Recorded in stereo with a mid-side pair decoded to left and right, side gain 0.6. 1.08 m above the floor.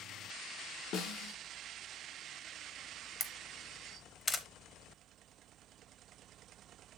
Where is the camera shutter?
30° left, 0.7 m.